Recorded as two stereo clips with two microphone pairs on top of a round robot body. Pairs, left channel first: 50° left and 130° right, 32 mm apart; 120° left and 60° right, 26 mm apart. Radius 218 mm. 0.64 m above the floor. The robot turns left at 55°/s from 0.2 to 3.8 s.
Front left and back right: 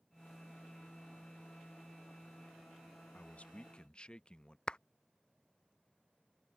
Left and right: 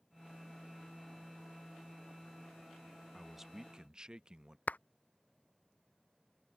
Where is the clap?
105° left.